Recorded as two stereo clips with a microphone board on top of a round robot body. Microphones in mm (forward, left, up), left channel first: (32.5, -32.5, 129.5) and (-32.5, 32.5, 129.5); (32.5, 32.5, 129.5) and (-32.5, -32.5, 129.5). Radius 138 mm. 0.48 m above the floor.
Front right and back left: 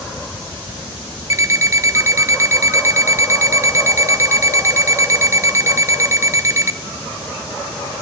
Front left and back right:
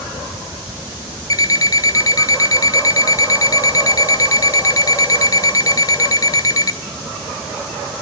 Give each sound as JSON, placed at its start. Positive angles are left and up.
{"t": 1.3, "sound": "an alarm clock", "azimuth_deg": 85, "distance_m": 0.7}